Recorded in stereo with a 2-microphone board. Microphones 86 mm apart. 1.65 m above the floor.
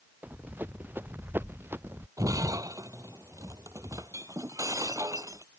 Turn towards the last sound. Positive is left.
turn(degrees=-40)  # may be behind; listen again after turning